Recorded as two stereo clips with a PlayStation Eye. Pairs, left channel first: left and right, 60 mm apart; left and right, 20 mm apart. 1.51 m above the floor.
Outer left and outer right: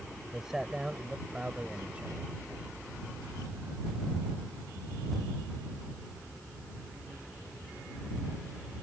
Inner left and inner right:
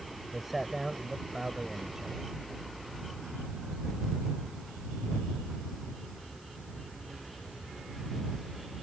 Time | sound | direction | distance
0.3 | a man speaking | 5° right (ahead or behind) | ?